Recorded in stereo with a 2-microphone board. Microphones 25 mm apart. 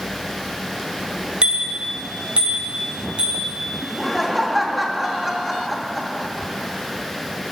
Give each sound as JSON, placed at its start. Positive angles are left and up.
{"t": 1.4, "sound": "a bicycle bell", "side_deg": -40, "distance_m": 2.5}
{"t": 3.8, "sound": "laughter", "side_deg": -5, "distance_m": 2.0}